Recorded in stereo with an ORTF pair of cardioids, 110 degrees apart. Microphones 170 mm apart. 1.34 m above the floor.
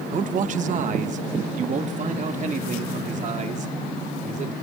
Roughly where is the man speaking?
Ahead right.